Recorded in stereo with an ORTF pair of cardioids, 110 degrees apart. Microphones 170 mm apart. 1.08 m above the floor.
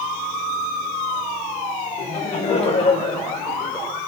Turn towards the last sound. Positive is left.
turn(degrees=25)